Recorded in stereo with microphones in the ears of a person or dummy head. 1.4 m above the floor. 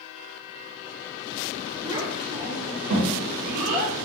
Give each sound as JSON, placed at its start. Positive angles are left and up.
{"t": 1.8, "sound": "a child speaking", "side_deg": -10, "distance_m": 0.9}